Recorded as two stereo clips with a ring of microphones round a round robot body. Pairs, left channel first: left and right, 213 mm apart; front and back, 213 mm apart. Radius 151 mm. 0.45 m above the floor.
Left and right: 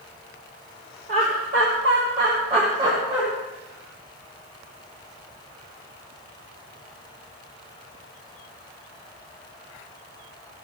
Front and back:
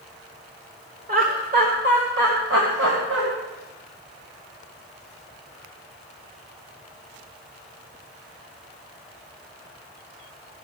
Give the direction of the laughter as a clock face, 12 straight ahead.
5 o'clock.